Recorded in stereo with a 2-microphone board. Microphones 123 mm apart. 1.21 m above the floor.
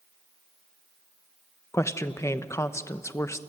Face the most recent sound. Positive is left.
turn(degrees=25)  # may be behind; listen again after turning